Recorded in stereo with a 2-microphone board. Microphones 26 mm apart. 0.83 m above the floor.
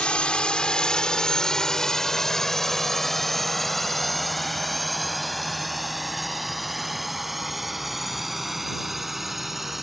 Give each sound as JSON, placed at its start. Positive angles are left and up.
{"t": 0.0, "sound": "a drone", "side_deg": 50}